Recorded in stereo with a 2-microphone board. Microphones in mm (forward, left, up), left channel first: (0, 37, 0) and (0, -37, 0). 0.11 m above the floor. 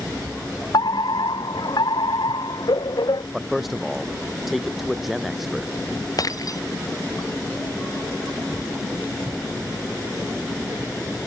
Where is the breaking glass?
55° left (ahead or behind).